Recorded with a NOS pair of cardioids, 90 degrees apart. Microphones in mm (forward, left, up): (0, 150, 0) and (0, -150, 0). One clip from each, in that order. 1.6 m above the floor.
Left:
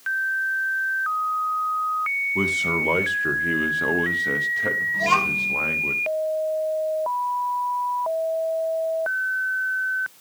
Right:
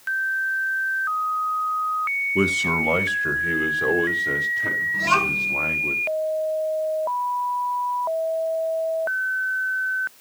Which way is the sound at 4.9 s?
Straight ahead.